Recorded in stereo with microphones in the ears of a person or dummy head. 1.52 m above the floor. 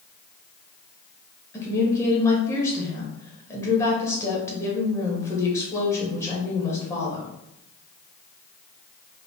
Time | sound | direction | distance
1.5 | a woman speaking | 15° left (ahead or behind) | 0.9 m